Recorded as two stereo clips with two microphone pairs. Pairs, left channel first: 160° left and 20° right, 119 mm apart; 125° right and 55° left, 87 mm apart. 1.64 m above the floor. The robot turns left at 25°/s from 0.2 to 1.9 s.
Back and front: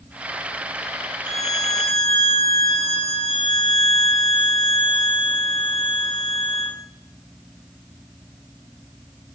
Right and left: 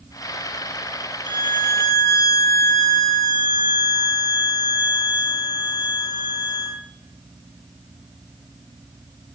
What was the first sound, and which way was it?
A violin, 140° right.